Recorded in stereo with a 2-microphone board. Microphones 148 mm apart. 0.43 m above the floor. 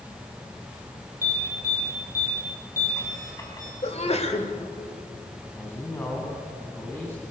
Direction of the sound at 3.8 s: 45° left (ahead or behind).